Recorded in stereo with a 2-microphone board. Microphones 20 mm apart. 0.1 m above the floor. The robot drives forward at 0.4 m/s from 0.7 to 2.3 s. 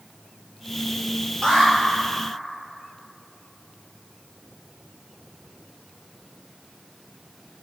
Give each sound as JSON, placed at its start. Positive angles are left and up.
{"t": 1.4, "sound": "an alarm", "side_deg": 30, "distance_m": 3.0}